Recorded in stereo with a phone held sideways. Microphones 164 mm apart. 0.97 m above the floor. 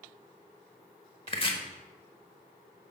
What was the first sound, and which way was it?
Chopping, 35° left (ahead or behind).